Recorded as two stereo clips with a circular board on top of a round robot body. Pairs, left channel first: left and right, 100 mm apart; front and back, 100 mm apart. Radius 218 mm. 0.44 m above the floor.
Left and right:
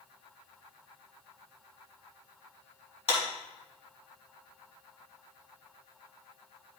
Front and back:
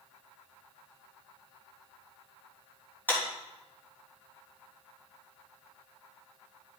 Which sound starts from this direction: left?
A clap, at 3.1 s.